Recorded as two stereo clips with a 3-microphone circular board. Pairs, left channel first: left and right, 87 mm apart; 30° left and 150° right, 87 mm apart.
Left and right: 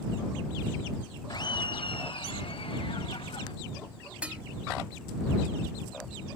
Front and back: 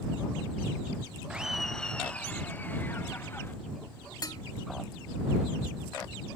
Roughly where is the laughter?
Behind left.